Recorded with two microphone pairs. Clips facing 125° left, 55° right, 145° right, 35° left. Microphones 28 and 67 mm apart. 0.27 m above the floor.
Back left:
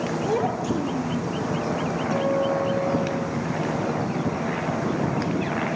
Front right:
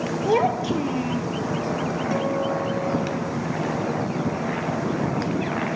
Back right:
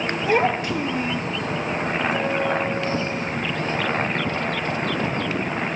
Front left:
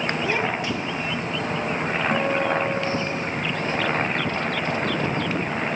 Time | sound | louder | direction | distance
0.2 | a child speaking | front right 5 dB, back right 4 dB | 85° right | 4 m
2.1 | a guitar | back left 3 dB, front left 2 dB | 5° left | 7.5 m